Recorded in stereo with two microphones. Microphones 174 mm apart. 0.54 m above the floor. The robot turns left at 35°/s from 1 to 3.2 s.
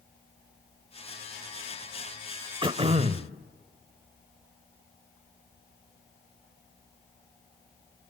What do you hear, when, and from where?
2.6 s throat clearing: 25° right (ahead or behind), 1.0 m; by 3.3 s 45° right (ahead or behind), 1.0 m